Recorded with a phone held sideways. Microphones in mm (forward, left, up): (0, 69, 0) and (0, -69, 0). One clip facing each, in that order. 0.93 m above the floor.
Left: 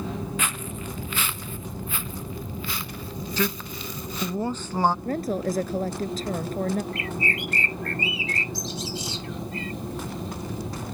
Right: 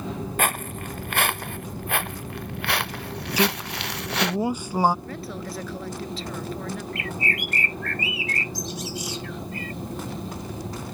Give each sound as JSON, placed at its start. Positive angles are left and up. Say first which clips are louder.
{"t": 0.4, "sound": "footsteps", "louder": "right 5 dB", "side_deg": -55}
{"t": 3.4, "sound": "a man speaking", "louder": "right 4 dB", "side_deg": -10}
{"t": 5.0, "sound": "a woman speaking", "louder": "left 8 dB", "side_deg": 45}
{"t": 6.9, "sound": "a bird", "louder": "even", "side_deg": 30}